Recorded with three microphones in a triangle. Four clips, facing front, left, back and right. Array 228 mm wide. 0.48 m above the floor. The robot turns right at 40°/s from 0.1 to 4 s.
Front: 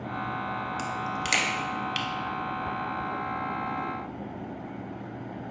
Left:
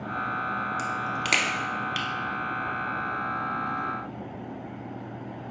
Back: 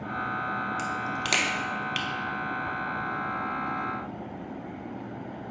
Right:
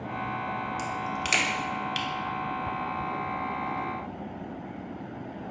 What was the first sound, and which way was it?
A crack, 105° left.